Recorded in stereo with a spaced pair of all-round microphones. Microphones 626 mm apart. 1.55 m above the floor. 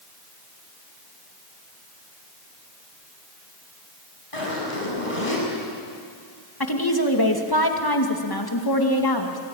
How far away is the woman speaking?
About 2.5 m.